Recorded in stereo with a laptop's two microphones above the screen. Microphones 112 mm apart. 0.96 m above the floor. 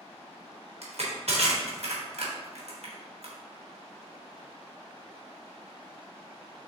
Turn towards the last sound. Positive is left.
turn(degrees=-70)  # may be behind; listen again after turning